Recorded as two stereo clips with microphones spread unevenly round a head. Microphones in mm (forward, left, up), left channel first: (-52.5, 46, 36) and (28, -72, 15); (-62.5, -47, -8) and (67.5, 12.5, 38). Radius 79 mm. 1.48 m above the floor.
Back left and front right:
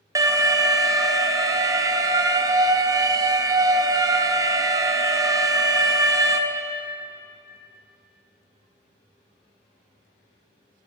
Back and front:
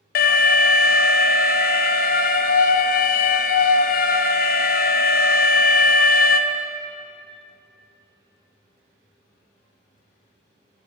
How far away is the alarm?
About 0.7 m.